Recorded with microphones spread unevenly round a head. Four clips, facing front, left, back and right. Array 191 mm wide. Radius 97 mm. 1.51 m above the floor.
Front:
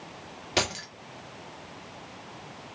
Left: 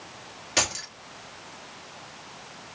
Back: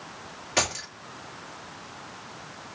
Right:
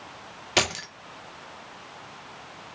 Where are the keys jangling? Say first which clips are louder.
Right 3 dB, back 1 dB; 35° right, 0.6 m.